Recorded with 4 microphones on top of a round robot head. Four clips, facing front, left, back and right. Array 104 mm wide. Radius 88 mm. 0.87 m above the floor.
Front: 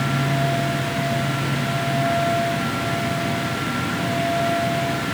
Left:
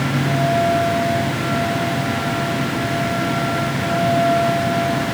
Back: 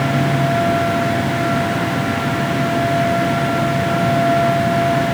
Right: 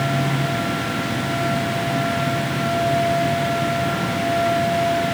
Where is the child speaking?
I don't hear a child speaking.